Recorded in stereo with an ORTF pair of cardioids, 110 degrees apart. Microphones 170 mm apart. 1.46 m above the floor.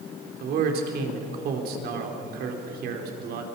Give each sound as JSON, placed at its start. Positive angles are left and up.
{"t": 0.4, "sound": "a man speaking", "azimuth_deg": -70, "distance_m": 4.5}